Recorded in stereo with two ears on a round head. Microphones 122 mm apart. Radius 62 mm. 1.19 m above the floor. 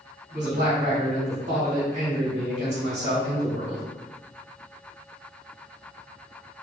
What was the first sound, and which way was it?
A man speaking, 50° right (ahead or behind).